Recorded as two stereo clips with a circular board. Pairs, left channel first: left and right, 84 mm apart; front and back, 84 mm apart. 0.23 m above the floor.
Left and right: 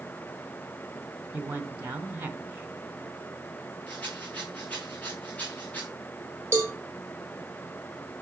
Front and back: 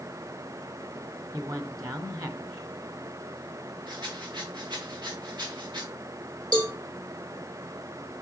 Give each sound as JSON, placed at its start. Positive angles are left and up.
{"t": 1.3, "sound": "a man speaking", "azimuth_deg": -150, "distance_m": 2.0}
{"t": 3.9, "sound": "a rattle", "azimuth_deg": 160, "distance_m": 3.5}
{"t": 6.5, "sound": "a cowbell", "azimuth_deg": -150, "distance_m": 3.0}